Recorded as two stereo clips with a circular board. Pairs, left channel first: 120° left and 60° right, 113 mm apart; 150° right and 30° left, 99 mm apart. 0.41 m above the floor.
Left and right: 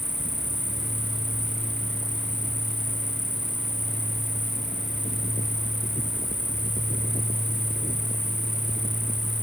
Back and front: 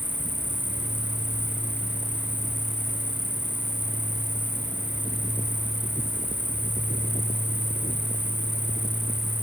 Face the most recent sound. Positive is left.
turn(degrees=-10)